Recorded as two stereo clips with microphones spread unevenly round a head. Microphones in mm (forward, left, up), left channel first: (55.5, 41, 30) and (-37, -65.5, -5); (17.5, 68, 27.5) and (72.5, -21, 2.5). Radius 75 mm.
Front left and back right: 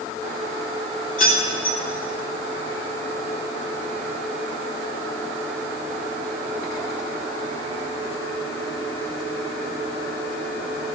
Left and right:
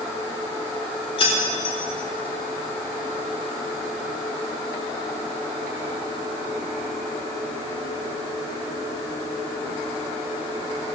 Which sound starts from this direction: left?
Keys jangling, at 1.2 s.